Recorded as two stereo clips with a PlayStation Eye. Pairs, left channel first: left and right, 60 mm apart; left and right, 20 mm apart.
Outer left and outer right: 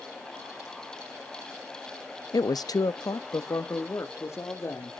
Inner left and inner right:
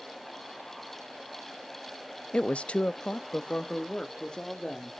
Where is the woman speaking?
75° left (ahead or behind), 0.5 m; by 5.0 s 40° left (ahead or behind), 2.5 m.